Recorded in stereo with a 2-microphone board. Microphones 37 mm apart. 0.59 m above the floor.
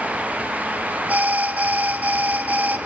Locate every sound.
1.1 s an alarm: 55° right (ahead or behind), 1.3 m